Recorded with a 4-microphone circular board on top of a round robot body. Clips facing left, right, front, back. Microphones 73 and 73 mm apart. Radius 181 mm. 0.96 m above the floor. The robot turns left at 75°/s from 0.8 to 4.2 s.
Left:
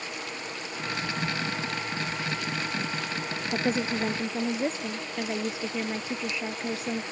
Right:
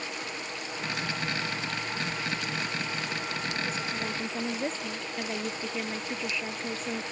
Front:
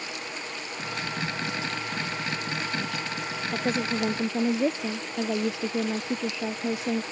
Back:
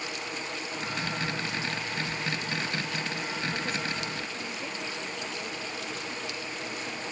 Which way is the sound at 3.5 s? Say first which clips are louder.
Left 6 dB, front 5 dB; 65° left.